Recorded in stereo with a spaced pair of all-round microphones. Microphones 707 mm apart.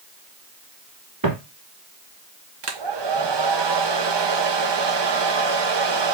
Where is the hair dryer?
40° right (ahead or behind), 0.6 m.